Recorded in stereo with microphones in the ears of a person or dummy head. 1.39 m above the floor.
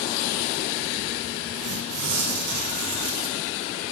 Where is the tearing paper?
60° right (ahead or behind), 0.9 m.